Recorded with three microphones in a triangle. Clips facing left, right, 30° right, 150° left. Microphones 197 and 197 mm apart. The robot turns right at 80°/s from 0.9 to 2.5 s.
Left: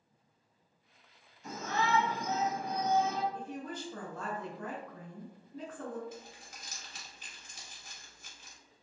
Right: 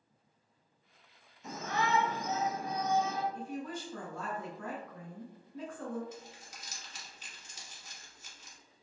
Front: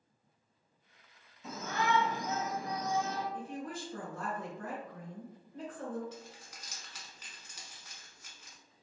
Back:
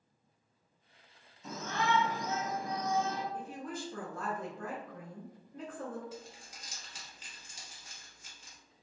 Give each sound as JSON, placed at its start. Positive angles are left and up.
{"t": 1.4, "sound": "a shout", "azimuth_deg": -110, "distance_m": 1.5}
{"t": 3.3, "sound": "a woman speaking", "azimuth_deg": 135, "distance_m": 1.8}
{"t": 6.1, "sound": "crumpling", "azimuth_deg": 100, "distance_m": 0.9}